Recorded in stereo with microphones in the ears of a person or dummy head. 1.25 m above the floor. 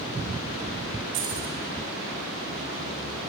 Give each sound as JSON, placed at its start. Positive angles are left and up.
{"t": 1.1, "sound": "keys jangling", "side_deg": -55, "distance_m": 3.5}